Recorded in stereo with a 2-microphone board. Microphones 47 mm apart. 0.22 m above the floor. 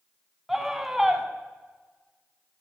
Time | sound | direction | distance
0.5 | a scream | 5° right (ahead or behind) | 1.9 m